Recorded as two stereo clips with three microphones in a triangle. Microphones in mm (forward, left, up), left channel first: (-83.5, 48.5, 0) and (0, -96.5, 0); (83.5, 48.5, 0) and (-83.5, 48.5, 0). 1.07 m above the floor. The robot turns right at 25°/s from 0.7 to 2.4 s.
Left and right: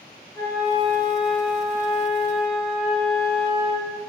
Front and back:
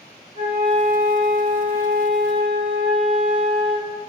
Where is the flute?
50° left, 3.5 m; by 3.9 s 90° left, 3.5 m.